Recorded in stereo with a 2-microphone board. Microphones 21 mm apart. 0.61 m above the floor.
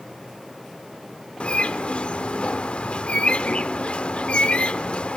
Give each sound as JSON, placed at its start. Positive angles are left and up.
{"t": 1.4, "sound": "a bird", "side_deg": 65, "distance_m": 1.0}